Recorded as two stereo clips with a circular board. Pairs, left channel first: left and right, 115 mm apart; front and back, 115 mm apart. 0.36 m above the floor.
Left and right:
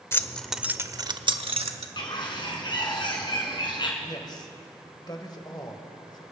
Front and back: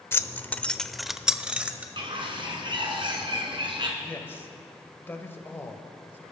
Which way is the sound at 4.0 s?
60° left.